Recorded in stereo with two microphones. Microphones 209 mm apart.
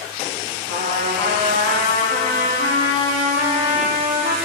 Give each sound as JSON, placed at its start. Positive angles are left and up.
{"t": 0.7, "sound": "a trumpet", "side_deg": -80, "distance_m": 3.5}